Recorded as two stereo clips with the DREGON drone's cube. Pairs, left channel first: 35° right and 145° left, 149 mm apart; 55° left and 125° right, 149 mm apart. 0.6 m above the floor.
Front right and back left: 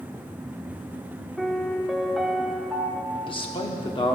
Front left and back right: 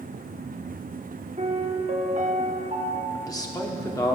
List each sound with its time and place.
1.4 s a piano: 125° right, 0.7 m
3.1 s a man speaking: 5° left, 1.0 m